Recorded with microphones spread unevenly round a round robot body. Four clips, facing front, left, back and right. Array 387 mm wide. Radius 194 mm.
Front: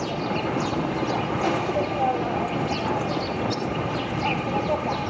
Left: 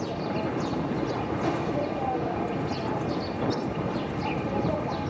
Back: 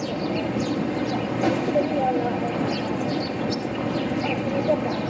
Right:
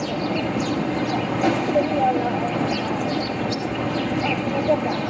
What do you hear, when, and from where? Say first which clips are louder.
0.0 s an insect: right 5 dB, back 1 dB; 120° right, 3.5 m